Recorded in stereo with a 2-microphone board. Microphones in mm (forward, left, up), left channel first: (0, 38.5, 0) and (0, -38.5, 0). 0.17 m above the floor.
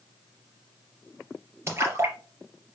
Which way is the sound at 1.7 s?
35° right (ahead or behind).